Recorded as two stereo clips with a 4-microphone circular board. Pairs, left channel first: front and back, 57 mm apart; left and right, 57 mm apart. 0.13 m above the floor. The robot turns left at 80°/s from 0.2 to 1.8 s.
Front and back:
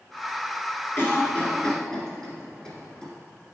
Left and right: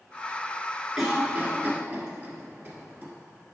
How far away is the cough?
About 1.5 m.